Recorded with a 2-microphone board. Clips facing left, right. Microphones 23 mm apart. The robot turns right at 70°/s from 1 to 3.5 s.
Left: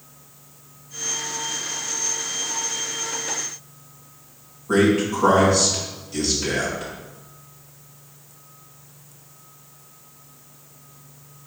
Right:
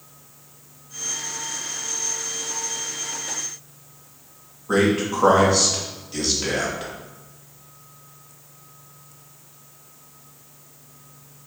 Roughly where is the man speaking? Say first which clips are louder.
Left 1 dB; right.